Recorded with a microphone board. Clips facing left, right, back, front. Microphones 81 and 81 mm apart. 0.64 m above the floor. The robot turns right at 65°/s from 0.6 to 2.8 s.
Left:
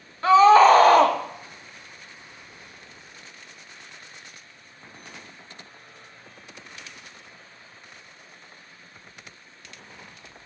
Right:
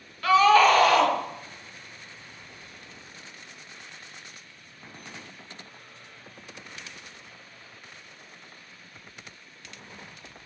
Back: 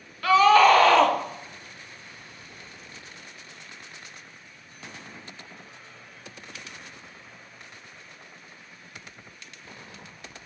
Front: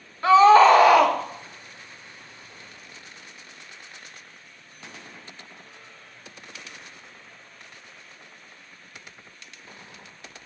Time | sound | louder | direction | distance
0.2 | a scream | left 5 dB, front 3 dB | 50° left | 0.7 m